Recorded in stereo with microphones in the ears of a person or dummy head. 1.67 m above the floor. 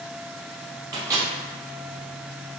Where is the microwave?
15° right (ahead or behind), 0.8 m.